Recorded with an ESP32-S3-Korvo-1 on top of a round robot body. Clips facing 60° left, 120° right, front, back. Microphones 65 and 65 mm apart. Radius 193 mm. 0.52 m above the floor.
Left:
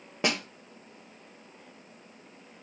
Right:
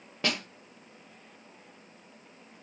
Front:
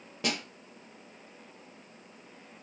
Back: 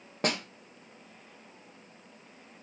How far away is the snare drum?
About 1.0 m.